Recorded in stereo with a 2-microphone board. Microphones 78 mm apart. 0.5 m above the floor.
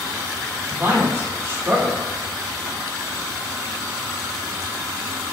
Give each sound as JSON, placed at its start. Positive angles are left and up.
{"t": 0.7, "sound": "a man speaking", "side_deg": -30, "distance_m": 1.4}